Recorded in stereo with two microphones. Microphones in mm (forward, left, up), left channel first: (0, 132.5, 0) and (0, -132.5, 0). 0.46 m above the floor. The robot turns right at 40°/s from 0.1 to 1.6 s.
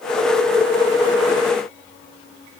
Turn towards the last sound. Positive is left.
No sound to turn to.